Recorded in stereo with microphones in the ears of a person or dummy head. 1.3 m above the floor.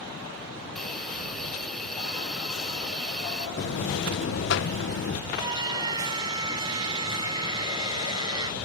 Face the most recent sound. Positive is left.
turn(degrees=-15)  # may be behind; listen again after turning